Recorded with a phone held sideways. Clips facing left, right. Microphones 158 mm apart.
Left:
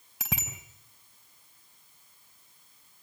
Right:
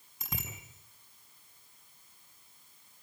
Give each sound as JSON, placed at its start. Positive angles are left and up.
{"t": 0.2, "sound": "a bicycle bell", "side_deg": 90, "distance_m": 4.0}